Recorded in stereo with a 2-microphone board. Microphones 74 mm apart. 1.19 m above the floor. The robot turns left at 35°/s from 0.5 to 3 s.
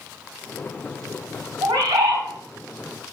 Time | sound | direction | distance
1.6 | a bird | 65° right (ahead or behind) | 3 m